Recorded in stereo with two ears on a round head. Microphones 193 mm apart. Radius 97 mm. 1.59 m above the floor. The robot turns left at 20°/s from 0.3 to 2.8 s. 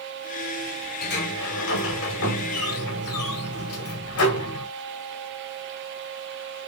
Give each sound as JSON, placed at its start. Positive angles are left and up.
{"t": 1.0, "sound": "a sliding door", "azimuth_deg": 130, "distance_m": 1.1}